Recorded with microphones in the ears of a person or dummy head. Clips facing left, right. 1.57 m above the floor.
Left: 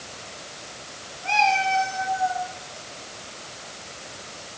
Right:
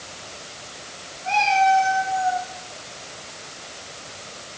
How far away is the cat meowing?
About 4.5 m.